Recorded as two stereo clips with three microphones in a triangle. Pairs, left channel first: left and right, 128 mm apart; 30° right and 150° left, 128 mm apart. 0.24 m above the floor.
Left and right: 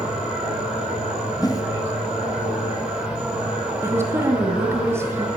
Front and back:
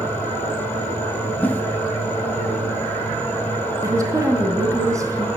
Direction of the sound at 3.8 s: 155° right.